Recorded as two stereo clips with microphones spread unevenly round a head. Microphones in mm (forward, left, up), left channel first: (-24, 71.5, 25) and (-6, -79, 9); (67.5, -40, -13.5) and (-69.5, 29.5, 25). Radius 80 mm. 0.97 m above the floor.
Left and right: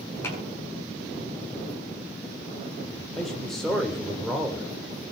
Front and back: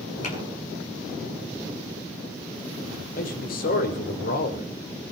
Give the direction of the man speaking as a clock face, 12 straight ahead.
12 o'clock.